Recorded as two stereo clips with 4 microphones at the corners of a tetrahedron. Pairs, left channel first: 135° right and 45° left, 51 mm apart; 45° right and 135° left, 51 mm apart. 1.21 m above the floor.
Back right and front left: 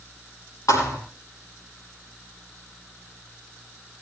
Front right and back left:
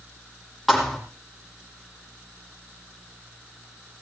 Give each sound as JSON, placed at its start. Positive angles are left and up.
{"t": 0.7, "sound": "a thud", "azimuth_deg": -140, "distance_m": 6.0}